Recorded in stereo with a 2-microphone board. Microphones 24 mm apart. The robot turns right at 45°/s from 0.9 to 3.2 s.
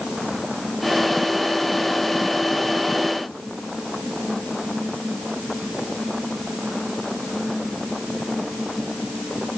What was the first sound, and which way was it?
Only background noise.